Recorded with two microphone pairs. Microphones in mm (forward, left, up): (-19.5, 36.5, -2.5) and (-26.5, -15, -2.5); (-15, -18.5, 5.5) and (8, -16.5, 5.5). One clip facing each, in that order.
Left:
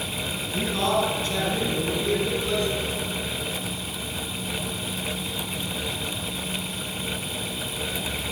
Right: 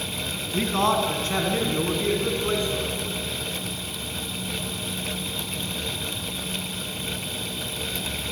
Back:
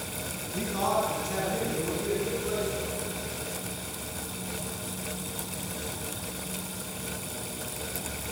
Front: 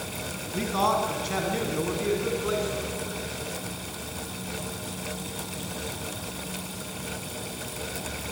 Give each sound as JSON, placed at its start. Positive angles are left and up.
{"t": 0.5, "sound": "a man speaking", "azimuth_deg": -55, "distance_m": 4.5}